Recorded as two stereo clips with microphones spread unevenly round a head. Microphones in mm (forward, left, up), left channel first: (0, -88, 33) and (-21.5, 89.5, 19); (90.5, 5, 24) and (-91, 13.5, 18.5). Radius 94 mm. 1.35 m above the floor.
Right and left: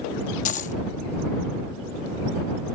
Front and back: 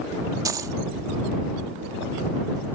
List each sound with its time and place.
0.5 s a dropped coin: 110° right